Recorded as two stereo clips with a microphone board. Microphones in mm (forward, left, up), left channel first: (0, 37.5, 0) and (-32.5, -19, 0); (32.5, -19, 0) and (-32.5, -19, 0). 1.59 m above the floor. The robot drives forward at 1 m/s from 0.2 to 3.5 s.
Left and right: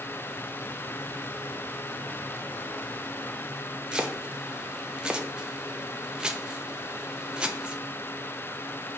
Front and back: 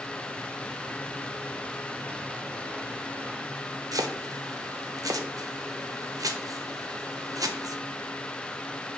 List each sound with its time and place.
3.9 s chopping: 165° left, 0.7 m